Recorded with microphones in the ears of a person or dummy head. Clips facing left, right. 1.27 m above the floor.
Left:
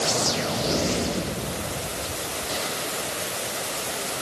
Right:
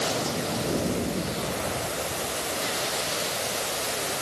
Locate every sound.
Only background noise.